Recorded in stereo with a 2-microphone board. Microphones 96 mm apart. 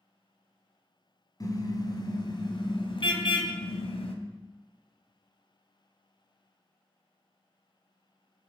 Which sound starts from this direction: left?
A car horn, at 1.4 s.